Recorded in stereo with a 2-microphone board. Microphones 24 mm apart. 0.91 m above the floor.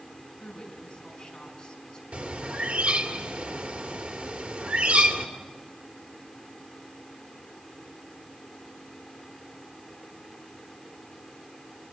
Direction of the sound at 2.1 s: 75° right (ahead or behind).